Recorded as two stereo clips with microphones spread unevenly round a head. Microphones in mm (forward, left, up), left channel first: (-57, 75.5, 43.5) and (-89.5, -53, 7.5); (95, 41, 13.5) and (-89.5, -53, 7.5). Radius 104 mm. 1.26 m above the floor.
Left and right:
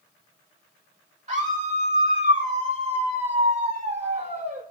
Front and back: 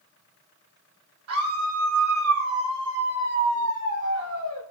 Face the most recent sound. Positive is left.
turn(degrees=-135)